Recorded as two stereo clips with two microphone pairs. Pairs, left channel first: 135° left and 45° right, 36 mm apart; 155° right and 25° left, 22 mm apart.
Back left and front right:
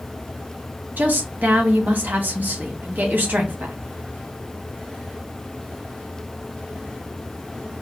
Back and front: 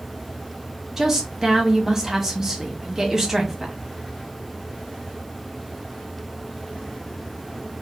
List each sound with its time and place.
1.0 s a woman speaking: 50° right, 0.7 m